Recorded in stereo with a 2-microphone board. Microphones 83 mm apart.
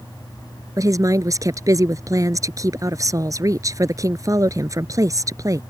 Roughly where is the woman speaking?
Right.